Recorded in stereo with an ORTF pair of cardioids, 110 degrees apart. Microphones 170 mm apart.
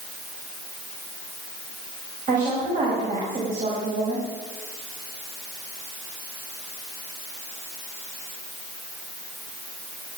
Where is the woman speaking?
55° right, 6.5 m.